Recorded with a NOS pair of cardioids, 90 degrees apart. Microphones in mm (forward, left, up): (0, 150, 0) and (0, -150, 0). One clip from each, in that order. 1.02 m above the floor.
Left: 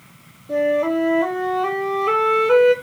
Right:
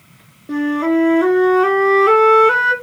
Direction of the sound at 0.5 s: 70° right.